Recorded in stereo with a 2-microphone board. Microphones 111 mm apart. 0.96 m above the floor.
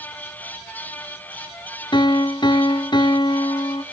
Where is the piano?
45° left (ahead or behind), 0.8 m.